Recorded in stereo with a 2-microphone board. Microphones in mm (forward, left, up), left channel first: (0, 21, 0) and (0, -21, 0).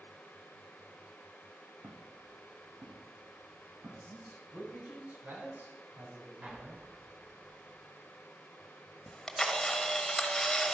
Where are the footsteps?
65° right (ahead or behind), 4 m; by 4.7 s 80° right, 5 m.